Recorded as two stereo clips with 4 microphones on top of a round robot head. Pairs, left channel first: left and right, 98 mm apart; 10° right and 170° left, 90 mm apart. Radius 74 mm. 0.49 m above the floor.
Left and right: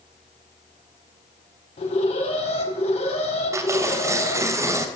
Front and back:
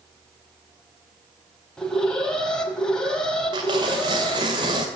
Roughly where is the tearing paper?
Behind right.